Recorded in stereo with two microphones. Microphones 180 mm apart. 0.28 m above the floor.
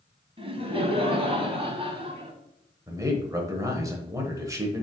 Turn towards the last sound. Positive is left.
turn(degrees=-20)  # may be behind; listen again after turning